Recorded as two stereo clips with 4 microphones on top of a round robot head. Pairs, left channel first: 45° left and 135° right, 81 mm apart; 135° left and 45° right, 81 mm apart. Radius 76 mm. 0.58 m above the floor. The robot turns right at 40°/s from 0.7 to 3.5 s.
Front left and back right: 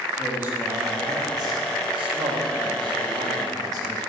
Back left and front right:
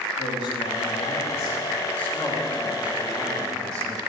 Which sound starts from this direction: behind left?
A man speaking, at 0.2 s.